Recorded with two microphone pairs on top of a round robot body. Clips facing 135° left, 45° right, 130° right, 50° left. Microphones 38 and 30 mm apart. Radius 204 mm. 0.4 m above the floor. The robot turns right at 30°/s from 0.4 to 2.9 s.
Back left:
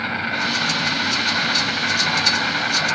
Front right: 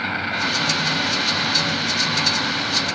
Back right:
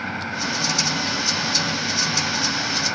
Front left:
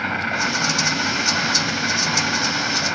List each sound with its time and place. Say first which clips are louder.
0.0 s an insect: even, front left 5 dB; 50° left, 6.5 m; by 3.0 s 125° left, 6.5 m